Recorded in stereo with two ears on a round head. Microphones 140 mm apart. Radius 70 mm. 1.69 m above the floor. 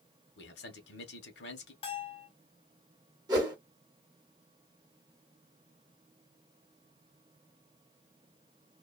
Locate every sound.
0.4 s a man speaking: 75° left (ahead or behind), 1.3 m
1.8 s a bell: 35° left (ahead or behind), 1.1 m
3.3 s a whoosh: 25° right (ahead or behind), 1.1 m